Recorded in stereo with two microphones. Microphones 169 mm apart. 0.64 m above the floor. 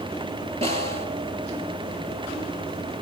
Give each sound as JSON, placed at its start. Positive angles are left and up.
{"t": 0.6, "sound": "a snare drum", "side_deg": -40, "distance_m": 3.0}